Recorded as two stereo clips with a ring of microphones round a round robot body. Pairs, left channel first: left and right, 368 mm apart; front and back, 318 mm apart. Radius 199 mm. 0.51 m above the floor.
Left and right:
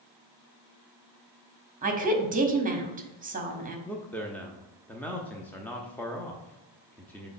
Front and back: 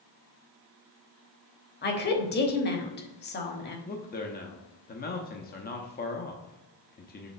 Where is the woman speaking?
35° right, 1.2 m.